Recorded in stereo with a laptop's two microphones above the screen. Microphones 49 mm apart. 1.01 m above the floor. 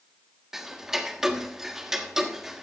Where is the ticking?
10° right (ahead or behind), 1.4 m.